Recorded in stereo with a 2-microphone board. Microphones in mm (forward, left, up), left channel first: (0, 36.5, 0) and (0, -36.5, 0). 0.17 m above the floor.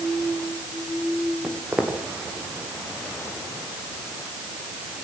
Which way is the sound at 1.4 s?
20° right (ahead or behind).